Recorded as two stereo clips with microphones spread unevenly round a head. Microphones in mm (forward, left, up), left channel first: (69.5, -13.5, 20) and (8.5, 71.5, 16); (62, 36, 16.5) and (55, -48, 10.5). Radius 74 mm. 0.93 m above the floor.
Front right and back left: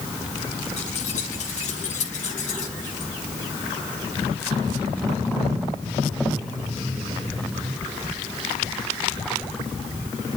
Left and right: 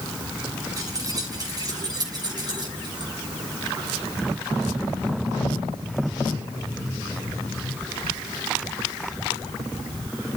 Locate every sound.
0.8 s keys jangling: 50° right, 5.5 m; by 3.1 s 60° right, 5.5 m